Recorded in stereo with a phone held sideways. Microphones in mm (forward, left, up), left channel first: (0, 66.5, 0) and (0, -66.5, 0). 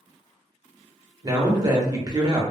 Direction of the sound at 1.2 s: 30° right (ahead or behind).